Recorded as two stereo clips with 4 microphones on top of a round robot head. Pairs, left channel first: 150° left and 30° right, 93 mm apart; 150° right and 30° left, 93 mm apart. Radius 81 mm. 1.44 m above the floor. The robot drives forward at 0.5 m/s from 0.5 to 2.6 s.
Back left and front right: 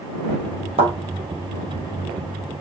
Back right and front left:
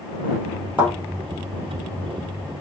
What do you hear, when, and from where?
0.8 s a thud: 45° right, 3.5 m